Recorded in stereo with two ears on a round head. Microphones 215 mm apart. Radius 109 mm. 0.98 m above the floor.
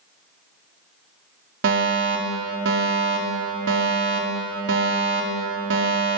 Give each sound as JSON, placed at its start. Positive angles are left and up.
{"t": 1.6, "sound": "a fire alarm", "side_deg": -55, "distance_m": 3.5}